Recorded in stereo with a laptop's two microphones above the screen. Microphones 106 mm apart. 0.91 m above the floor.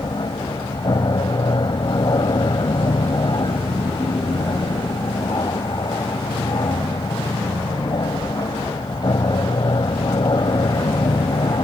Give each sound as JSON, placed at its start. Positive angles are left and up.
{"t": 0.0, "sound": "an aircraft", "side_deg": 45}